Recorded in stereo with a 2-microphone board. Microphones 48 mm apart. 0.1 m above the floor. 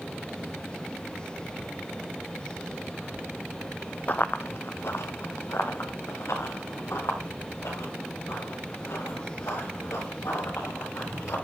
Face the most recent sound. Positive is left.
turn(degrees=90)